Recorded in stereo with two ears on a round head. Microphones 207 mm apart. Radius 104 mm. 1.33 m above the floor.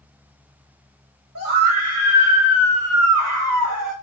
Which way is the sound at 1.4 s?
75° right (ahead or behind).